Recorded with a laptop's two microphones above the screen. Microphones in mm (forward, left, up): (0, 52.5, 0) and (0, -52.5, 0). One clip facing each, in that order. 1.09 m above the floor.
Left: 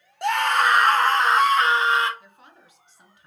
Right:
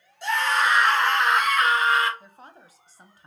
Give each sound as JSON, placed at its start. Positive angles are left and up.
{"t": 0.2, "sound": "a scream", "side_deg": 65, "distance_m": 0.9}
{"t": 2.2, "sound": "a woman speaking", "side_deg": -35, "distance_m": 0.8}